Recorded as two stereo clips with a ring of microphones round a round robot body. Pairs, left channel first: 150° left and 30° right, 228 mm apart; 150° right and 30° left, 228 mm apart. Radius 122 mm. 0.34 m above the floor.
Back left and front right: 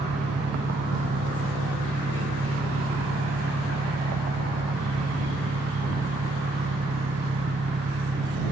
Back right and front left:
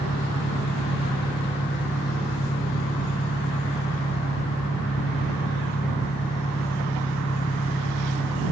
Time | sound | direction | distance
0.0 | an engine running | 85° right | ?